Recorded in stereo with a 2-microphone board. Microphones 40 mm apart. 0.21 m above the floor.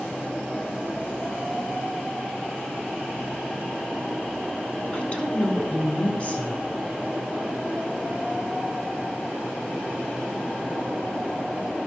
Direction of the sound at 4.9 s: 30° left (ahead or behind).